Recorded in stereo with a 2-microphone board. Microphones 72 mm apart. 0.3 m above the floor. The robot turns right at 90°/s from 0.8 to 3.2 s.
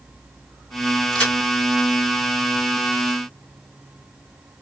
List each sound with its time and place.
1.1 s a crack: 5° left (ahead or behind), 3 m; by 1.3 s 25° left (ahead or behind), 3 m